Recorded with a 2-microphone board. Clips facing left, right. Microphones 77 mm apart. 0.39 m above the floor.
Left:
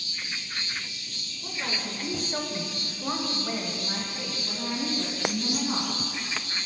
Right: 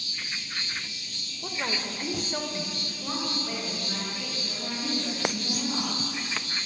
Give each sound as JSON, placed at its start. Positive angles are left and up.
{"t": 1.4, "sound": "a woman speaking", "side_deg": -35, "distance_m": 1.0}